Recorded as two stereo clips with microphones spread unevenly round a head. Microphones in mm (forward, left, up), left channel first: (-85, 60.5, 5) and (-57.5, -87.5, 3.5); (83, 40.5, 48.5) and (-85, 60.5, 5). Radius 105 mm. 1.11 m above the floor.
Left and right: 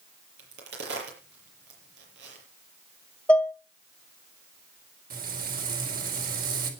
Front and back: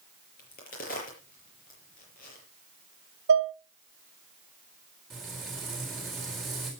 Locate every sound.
0.4 s a crack: 55° right, 6.5 m
3.3 s dishes clattering: straight behind, 1.3 m
5.1 s frying: 100° right, 4 m